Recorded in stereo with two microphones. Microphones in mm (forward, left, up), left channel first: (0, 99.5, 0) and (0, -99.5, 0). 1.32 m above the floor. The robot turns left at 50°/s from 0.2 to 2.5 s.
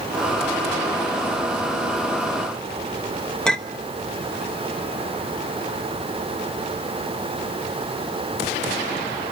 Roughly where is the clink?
Centre.